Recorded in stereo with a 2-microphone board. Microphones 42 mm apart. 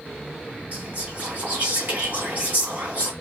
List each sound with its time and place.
0.7 s whispering: 50° right (ahead or behind), 2 m